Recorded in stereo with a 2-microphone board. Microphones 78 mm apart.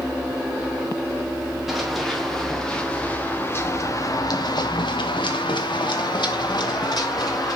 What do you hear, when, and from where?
1.7 s running footsteps: centre (ahead or behind), 3 m; by 7.6 s 55° left (ahead or behind), 3.5 m